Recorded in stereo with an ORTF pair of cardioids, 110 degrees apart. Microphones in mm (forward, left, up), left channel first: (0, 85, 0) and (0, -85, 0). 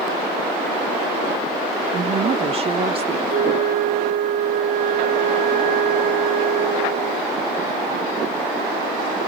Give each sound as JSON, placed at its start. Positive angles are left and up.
{"t": 1.9, "sound": "a woman speaking", "azimuth_deg": -35, "distance_m": 0.8}
{"t": 3.3, "sound": "a flute", "azimuth_deg": -55, "distance_m": 2.0}